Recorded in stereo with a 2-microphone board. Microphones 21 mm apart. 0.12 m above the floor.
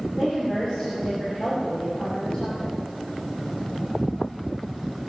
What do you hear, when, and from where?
0.2 s a woman speaking: 30° left (ahead or behind), 5.5 m